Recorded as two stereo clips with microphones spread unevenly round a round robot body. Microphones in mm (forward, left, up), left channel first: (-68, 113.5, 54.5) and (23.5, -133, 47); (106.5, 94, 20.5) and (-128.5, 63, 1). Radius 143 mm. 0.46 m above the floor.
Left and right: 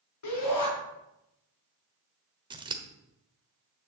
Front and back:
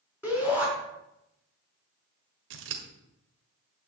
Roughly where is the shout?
Left.